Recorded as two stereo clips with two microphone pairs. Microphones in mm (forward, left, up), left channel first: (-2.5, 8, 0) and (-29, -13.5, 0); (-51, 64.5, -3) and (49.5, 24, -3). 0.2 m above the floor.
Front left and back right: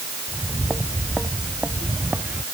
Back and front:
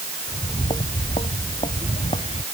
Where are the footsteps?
165° left; by 2.4 s 170° left.